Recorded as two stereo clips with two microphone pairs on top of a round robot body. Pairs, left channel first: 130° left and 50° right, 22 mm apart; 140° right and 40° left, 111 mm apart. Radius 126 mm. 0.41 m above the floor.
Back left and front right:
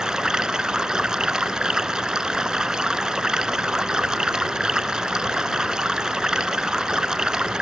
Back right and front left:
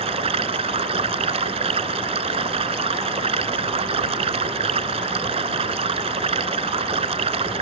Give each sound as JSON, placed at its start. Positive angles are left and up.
{"t": 0.0, "sound": "running water", "azimuth_deg": 10}